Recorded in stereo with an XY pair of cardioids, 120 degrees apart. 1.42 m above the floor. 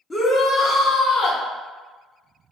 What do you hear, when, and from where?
0.1 s a shout: 25° left, 0.7 m; by 1.4 s 75° left, 1.2 m